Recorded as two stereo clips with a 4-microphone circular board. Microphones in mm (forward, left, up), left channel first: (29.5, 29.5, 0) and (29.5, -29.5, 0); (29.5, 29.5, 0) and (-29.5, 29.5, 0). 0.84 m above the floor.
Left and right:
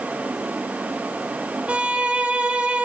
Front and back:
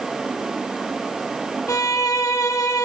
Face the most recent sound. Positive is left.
turn(degrees=-20)